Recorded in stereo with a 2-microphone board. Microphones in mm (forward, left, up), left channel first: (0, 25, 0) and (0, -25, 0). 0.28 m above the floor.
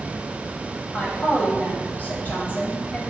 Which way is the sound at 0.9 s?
35° left (ahead or behind).